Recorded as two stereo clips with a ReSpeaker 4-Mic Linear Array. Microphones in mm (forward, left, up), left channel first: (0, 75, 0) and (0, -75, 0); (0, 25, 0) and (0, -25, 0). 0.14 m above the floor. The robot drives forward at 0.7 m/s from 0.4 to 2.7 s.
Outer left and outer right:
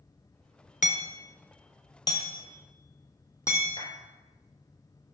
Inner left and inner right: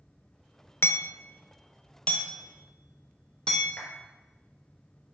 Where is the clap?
35° left (ahead or behind), 2 m.